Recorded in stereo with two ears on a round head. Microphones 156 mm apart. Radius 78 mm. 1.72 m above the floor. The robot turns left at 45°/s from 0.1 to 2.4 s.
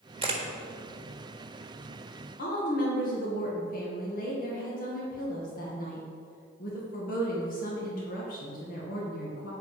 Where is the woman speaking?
50° left (ahead or behind), 2 m.